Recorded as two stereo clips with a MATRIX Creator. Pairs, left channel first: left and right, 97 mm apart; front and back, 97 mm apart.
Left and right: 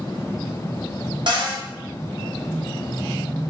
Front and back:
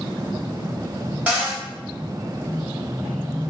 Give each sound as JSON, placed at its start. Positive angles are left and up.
{"t": 1.3, "sound": "a cupboard door", "azimuth_deg": -105, "distance_m": 1.1}